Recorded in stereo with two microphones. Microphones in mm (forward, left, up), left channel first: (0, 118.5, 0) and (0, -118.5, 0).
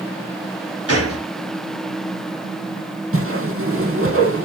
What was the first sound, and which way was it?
A gunshot, 85° right.